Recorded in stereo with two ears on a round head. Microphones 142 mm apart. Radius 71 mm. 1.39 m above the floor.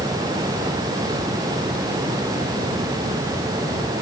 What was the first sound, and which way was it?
Only background noise.